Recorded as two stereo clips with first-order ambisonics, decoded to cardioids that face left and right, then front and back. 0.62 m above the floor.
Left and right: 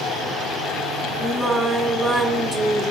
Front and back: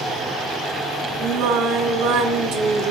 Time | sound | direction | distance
1.2 | singing | 175° left | 2 m